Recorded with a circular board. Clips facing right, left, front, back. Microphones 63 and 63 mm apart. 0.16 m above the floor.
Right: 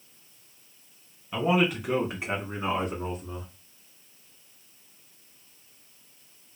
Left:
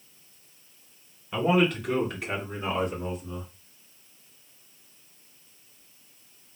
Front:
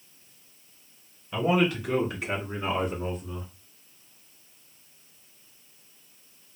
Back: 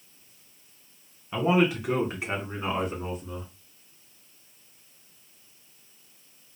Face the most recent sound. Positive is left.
turn(degrees=-110)